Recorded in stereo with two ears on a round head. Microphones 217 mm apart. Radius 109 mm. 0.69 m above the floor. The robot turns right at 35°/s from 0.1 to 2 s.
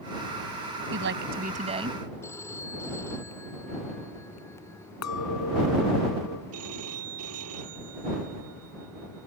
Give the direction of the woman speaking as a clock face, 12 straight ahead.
2 o'clock.